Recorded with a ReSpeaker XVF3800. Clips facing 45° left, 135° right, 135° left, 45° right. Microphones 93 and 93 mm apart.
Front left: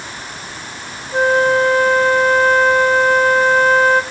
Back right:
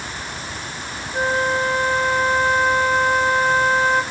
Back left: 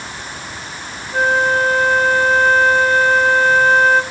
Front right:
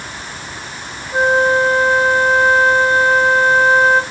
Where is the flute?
25° left, 2.5 m.